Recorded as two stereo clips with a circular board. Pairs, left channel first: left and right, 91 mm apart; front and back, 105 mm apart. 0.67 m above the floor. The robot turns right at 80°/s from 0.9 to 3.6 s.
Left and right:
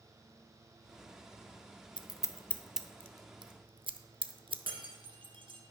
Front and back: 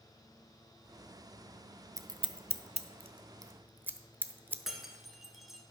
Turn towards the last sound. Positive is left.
turn(degrees=-90)